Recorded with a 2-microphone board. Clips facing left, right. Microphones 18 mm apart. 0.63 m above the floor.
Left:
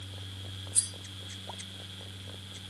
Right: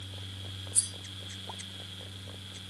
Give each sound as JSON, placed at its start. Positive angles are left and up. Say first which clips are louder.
{"t": 0.7, "sound": "cutlery clinking", "louder": "even", "side_deg": 75, "distance_m": 2.0}